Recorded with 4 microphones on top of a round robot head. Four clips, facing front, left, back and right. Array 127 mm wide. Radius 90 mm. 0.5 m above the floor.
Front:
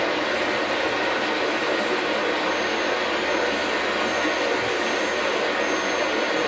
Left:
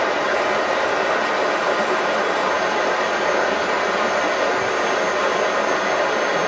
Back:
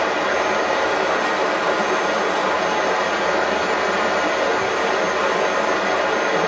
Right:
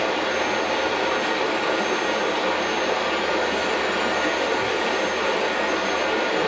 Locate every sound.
0.0 s running water: 135° left, 1.5 m